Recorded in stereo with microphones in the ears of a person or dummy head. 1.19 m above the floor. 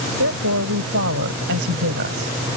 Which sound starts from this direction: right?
A woman speaking, at 0.2 s.